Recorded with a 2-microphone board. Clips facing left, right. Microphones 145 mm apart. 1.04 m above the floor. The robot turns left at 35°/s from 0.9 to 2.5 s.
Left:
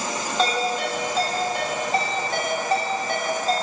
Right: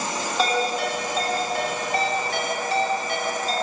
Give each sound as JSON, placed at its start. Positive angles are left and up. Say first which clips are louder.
{"t": 0.4, "sound": "a ringtone", "louder": "even", "side_deg": -5, "distance_m": 1.9}